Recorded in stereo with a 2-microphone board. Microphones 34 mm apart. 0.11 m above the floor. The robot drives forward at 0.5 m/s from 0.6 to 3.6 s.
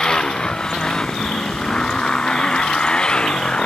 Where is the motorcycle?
20° left (ahead or behind); by 3.7 s 25° left (ahead or behind).